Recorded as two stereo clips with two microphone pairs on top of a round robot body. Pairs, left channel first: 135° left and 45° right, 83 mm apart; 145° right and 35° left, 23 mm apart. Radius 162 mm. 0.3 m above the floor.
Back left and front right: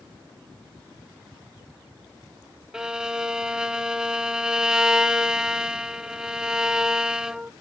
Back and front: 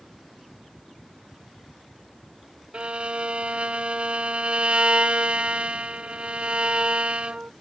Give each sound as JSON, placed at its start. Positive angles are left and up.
{"t": 2.7, "sound": "a violin", "azimuth_deg": 40, "distance_m": 0.5}